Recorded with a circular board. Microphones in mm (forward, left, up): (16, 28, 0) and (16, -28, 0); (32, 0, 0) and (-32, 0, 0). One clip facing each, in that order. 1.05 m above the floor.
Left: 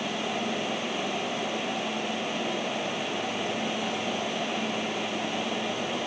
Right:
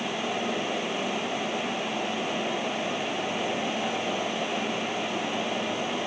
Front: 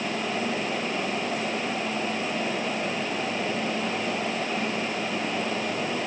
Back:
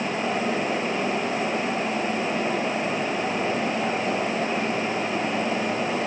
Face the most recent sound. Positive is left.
No sound to turn to.